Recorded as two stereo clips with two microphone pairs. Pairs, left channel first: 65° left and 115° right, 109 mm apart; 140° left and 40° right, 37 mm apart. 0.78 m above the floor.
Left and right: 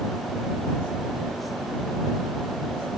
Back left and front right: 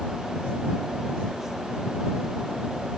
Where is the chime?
I don't hear a chime.